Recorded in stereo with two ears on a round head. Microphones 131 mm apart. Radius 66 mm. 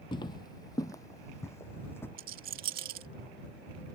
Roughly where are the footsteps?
Left.